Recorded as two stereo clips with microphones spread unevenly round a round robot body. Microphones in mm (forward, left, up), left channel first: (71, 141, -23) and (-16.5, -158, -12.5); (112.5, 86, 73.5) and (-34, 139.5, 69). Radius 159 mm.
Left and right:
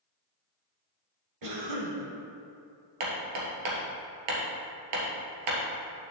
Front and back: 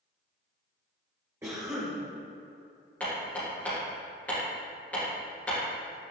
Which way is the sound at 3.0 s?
105° right.